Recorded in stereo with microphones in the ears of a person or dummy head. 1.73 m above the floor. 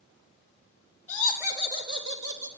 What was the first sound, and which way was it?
Laughter, 10° left (ahead or behind).